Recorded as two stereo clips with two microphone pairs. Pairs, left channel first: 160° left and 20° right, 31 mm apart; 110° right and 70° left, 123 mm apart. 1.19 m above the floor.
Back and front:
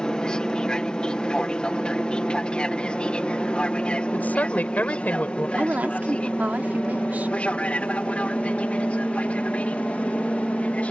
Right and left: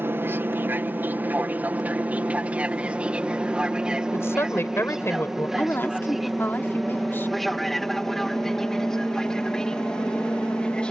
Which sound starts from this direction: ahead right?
A woman speaking, at 5.6 s.